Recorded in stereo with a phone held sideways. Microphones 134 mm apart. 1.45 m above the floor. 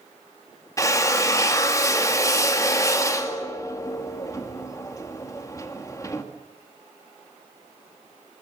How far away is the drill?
About 2 m.